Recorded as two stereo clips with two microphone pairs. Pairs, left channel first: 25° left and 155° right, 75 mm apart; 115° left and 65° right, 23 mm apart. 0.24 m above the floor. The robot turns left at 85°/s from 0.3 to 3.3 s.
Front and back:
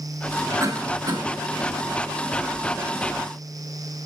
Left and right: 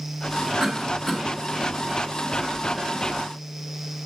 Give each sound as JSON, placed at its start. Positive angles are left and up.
{"t": 0.6, "sound": "a cough", "azimuth_deg": -105, "distance_m": 2.5}